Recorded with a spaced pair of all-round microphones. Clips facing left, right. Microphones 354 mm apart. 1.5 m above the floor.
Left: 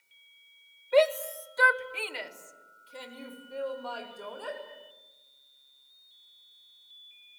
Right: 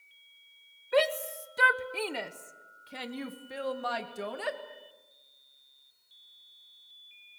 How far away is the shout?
About 0.9 m.